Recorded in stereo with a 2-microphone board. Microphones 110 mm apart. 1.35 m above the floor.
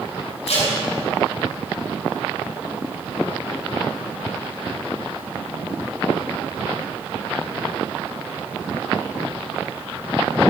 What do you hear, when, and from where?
0.5 s tape being pulled: 75° left (ahead or behind), 3 m